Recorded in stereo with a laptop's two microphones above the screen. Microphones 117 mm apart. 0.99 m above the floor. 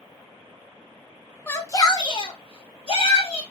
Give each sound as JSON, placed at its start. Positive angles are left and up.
{"t": 1.5, "sound": "a shout", "side_deg": 20, "distance_m": 0.6}